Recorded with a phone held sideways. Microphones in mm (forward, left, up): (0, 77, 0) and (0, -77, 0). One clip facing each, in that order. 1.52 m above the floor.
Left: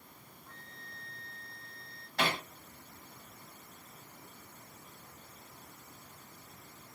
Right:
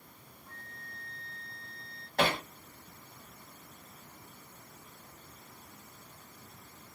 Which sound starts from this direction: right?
Hammering, at 2.2 s.